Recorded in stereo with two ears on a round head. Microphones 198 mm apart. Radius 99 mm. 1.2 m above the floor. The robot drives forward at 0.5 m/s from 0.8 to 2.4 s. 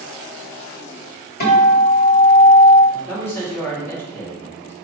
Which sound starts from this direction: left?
A guitar, at 1.4 s.